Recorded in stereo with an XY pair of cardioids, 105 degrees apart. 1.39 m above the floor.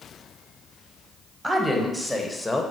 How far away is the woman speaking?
About 1.2 m.